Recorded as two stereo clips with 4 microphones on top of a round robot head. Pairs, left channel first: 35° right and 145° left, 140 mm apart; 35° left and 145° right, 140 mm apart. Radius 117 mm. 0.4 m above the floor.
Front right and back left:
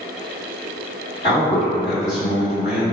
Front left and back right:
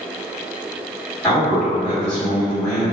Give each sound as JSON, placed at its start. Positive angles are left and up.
{"t": 1.2, "sound": "a man speaking", "azimuth_deg": -35, "distance_m": 1.9}